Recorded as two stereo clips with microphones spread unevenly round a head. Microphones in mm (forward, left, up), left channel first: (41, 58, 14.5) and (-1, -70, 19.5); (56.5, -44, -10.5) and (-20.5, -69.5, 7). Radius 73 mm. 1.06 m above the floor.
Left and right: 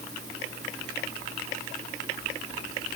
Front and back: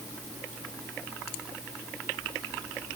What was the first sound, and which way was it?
Only background noise.